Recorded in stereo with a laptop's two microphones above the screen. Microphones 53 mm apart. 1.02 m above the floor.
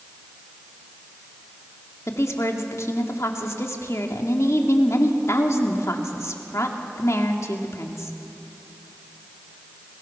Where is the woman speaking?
65° left (ahead or behind), 2 m.